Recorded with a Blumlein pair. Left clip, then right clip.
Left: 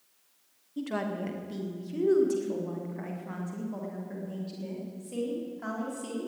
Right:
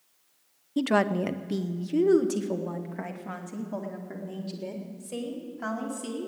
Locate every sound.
0.8 s a woman speaking: 55° right, 0.7 m; by 6.3 s 75° right, 4.5 m